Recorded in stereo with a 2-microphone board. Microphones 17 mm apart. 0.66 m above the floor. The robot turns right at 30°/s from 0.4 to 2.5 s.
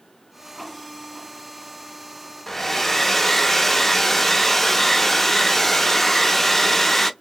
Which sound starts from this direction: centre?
A hair dryer, at 2.5 s.